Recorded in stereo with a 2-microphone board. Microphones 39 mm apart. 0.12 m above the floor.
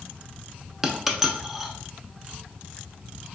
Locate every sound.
0.8 s a dropped coin: 5° right (ahead or behind), 0.5 m